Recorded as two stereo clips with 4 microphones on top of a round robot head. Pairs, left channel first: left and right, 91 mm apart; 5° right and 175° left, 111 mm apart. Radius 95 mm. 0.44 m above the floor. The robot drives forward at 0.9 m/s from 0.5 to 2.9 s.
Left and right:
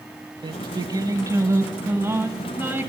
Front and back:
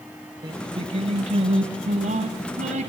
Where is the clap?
I don't hear a clap.